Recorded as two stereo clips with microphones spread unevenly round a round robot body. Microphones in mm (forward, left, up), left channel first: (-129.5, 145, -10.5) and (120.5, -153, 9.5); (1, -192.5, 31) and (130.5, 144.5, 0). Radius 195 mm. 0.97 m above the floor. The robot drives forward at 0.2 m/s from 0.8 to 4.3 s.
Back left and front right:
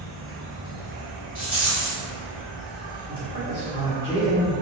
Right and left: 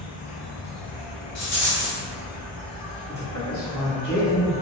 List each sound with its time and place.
0.0 s an insect: 120° right, 0.7 m; by 4.6 s 150° right, 1.2 m
1.4 s a rattle: 135° right, 1.4 m
3.1 s a man speaking: 165° left, 0.8 m; by 4.5 s 170° left, 1.0 m